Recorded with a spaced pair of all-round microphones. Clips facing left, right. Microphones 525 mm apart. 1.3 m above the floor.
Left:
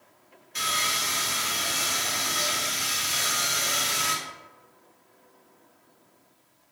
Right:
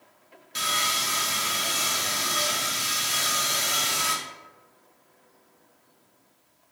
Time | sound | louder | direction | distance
0.6 | sawing | right 1 dB | 60° right (ahead or behind) | 0.8 m